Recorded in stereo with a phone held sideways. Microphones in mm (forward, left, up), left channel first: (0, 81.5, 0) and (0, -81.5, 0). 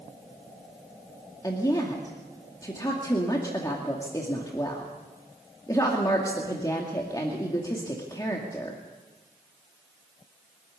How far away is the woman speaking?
About 2.5 m.